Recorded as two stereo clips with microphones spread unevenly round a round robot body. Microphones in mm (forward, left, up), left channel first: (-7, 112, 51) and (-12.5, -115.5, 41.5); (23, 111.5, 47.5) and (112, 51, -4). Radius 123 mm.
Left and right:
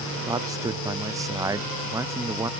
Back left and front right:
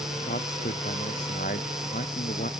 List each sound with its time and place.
0.3 s a man speaking: 165° right; by 2.5 s 170° right